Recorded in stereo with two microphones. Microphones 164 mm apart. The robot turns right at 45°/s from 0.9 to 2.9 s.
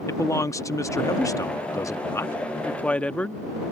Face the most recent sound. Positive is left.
turn(degrees=5)  # may be behind; listen again after turning